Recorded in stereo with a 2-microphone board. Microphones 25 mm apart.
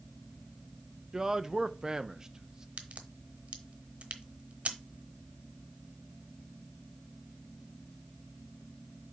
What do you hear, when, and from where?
1.1 s a man speaking: 20° right (ahead or behind), 0.6 m
2.8 s a crack: 55° right (ahead or behind), 1.1 m